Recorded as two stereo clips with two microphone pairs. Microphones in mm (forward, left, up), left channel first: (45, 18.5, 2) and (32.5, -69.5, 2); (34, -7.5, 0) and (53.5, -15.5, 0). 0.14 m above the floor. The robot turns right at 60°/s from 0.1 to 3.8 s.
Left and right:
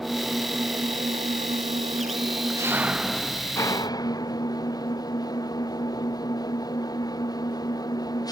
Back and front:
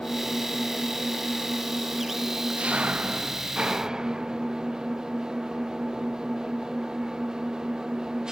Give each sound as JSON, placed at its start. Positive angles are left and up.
{"t": 0.0, "sound": "an engine running", "azimuth_deg": 175}